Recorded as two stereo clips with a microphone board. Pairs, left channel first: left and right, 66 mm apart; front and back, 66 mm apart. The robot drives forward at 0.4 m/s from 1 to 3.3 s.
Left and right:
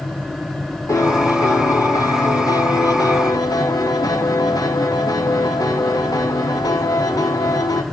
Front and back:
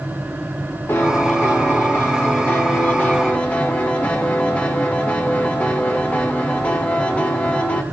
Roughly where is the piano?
Ahead left.